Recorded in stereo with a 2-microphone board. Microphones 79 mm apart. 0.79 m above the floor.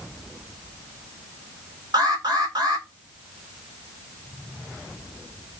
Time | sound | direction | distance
1.9 | an alarm | 65° right (ahead or behind) | 2.5 m